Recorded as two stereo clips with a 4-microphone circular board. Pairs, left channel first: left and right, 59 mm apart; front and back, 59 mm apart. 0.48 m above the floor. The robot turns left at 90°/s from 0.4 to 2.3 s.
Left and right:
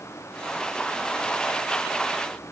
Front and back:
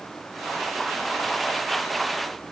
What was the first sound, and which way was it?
Only background noise.